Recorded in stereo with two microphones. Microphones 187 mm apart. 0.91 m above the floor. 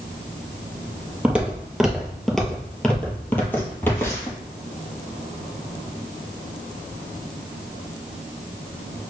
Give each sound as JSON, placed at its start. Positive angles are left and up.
{"t": 1.2, "sound": "footsteps", "side_deg": -5, "distance_m": 1.0}